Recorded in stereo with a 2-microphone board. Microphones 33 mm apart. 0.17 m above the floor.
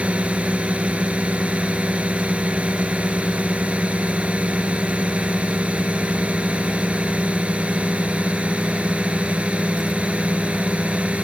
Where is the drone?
40° right (ahead or behind).